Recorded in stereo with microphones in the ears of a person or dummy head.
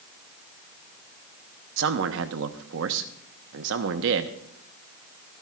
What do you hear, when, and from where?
1.8 s a man speaking: 70° right (ahead or behind), 1.0 m